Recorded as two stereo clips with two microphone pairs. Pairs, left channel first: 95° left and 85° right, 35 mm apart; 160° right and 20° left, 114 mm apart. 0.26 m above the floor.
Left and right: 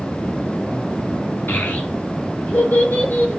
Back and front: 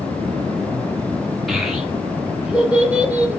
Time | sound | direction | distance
1.5 | a child speaking | 115° left | 3.5 m